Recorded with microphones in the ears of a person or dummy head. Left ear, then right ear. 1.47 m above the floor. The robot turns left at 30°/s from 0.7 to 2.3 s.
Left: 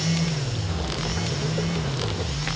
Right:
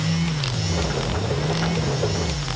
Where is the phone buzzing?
I don't hear a phone buzzing.